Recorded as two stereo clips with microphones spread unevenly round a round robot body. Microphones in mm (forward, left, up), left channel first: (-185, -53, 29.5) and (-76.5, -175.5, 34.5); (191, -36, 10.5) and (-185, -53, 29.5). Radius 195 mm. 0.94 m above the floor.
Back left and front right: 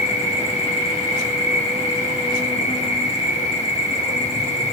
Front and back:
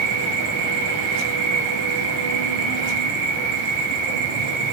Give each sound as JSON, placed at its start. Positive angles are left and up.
{"t": 0.0, "sound": "an insect", "azimuth_deg": 180, "distance_m": 8.0}